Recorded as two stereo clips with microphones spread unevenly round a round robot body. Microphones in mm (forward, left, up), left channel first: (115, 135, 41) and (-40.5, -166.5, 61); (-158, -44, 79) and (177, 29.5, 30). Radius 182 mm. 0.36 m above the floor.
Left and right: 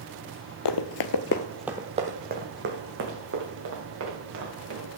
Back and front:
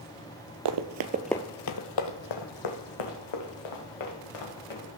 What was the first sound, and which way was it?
Running footsteps, 40° left.